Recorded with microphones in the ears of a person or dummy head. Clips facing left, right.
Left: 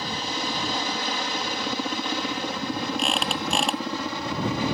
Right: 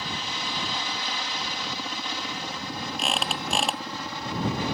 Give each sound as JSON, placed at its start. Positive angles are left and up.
{"t": 0.0, "sound": "a helicopter", "side_deg": 45}
{"t": 3.0, "sound": "a squeak", "side_deg": 0}